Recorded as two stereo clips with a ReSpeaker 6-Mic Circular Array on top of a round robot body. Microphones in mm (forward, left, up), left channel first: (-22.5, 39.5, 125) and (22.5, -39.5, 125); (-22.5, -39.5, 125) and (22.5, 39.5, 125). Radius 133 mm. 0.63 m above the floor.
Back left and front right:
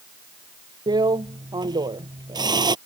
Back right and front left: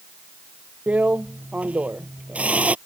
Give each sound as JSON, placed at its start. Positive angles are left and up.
{"t": 0.9, "sound": "a drill", "azimuth_deg": -15}